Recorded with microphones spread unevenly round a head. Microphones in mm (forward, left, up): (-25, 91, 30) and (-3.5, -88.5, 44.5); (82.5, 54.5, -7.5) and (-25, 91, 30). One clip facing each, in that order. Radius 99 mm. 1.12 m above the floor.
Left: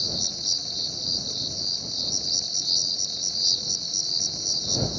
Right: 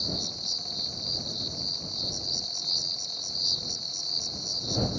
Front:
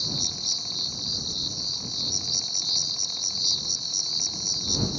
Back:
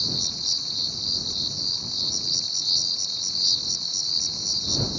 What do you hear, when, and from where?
0.0 s an insect: 50° left